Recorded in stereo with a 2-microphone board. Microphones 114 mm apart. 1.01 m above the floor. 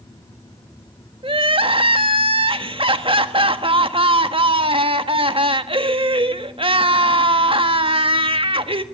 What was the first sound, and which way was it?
Crying, 50° right (ahead or behind).